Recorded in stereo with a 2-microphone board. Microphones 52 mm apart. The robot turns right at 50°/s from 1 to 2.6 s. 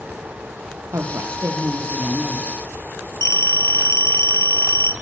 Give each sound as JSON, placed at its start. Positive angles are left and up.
{"t": 0.9, "sound": "a woman speaking", "azimuth_deg": -80, "distance_m": 4.5}
{"t": 3.2, "sound": "a phone ringing", "side_deg": 75, "distance_m": 1.9}